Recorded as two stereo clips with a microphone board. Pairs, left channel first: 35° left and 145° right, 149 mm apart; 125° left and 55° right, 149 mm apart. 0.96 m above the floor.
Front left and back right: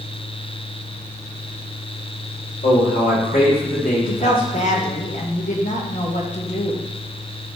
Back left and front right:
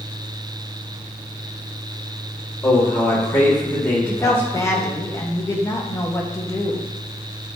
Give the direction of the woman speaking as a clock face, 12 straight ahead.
10 o'clock.